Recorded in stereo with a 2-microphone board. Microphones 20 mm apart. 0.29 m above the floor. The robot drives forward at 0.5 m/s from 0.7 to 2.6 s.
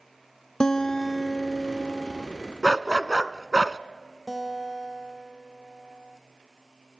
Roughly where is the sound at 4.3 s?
Centre.